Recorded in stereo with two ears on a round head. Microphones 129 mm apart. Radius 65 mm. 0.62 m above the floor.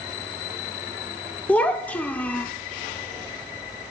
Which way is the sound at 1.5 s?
10° left (ahead or behind).